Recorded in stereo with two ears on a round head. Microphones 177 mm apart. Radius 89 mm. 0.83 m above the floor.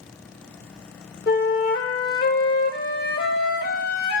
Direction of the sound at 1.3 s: 55° left (ahead or behind).